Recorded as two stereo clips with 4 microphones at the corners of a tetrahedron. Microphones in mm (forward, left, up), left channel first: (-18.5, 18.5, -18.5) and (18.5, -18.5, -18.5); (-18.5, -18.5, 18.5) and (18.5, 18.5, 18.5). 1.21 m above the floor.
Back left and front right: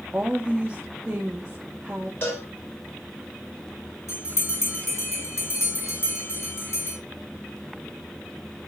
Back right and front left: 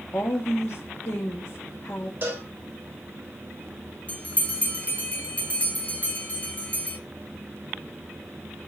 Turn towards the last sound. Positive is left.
turn(degrees=165)